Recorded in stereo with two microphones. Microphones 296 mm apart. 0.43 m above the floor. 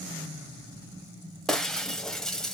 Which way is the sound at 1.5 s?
Centre (ahead or behind).